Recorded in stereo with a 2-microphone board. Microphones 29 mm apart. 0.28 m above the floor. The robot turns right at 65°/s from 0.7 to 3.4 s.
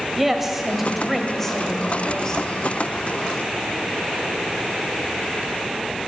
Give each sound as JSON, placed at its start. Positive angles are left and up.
{"t": 0.2, "sound": "a woman speaking", "side_deg": -10, "distance_m": 0.9}